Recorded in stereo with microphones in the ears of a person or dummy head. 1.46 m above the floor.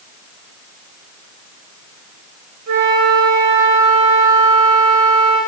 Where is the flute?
60° right (ahead or behind), 2.5 m.